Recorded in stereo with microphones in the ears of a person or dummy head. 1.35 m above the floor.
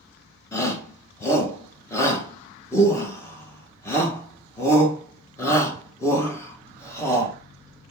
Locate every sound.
0.5 s a shout: 20° left (ahead or behind), 1.2 m